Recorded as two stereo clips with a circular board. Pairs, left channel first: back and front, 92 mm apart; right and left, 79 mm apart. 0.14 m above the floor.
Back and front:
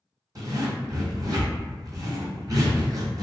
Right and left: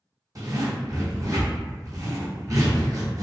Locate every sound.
0.3 s a zipper: 50° left, 0.9 m